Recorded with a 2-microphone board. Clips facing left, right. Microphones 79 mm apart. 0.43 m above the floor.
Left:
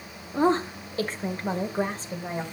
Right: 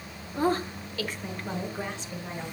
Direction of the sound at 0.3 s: 20° left (ahead or behind).